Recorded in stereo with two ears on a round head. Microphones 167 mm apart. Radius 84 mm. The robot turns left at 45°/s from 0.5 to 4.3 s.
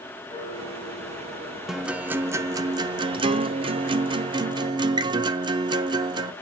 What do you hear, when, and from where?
0.3 s a piano: 25° left, 3 m; by 1.6 s 20° right, 3 m
1.7 s a guitar: centre (ahead or behind), 0.7 m; by 6.3 s 25° right (ahead or behind), 0.7 m